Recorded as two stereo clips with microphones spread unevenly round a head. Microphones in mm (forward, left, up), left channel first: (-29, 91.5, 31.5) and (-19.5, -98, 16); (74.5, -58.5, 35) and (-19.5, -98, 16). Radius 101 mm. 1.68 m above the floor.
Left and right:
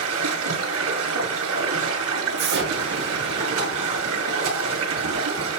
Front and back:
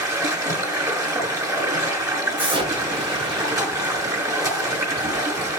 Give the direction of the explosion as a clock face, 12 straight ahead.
4 o'clock.